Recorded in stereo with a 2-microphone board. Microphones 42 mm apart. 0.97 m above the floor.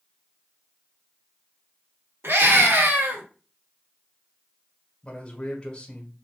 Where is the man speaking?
25° left (ahead or behind), 1.7 m.